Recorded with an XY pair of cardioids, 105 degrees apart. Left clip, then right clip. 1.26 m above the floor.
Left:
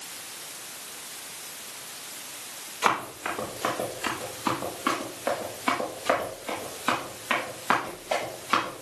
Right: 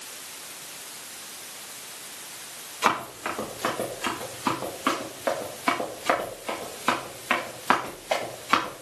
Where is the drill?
I don't hear a drill.